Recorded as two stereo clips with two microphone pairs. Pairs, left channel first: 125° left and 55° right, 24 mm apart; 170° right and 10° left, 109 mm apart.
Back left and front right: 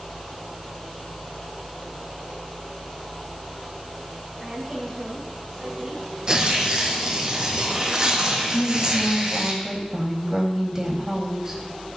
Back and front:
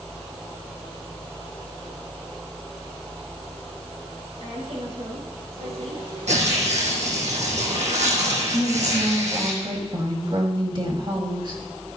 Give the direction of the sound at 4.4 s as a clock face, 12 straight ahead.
11 o'clock.